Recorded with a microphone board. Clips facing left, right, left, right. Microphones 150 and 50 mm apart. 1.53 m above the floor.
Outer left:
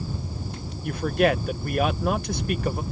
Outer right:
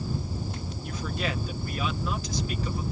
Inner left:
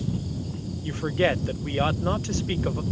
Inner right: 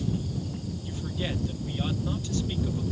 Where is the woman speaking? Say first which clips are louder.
Outer left 12 dB, inner left 12 dB; 60° left (ahead or behind).